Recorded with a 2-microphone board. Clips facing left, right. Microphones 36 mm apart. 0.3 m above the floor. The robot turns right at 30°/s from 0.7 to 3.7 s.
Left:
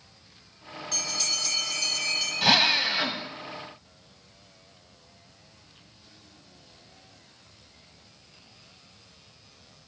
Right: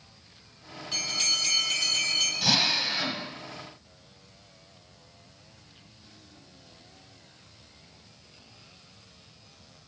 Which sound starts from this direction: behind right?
A bell, at 0.9 s.